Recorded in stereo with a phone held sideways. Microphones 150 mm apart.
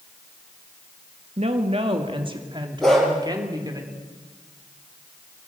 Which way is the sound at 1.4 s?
50° right (ahead or behind).